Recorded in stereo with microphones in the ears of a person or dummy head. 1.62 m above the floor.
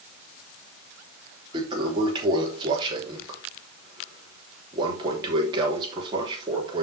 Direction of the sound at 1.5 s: 25° right (ahead or behind).